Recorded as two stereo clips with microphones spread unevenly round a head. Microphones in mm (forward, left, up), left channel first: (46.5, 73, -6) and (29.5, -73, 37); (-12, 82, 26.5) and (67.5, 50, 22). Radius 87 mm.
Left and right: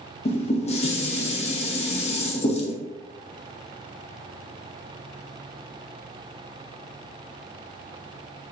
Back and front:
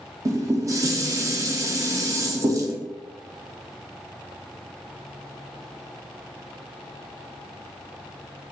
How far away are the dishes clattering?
About 0.9 m.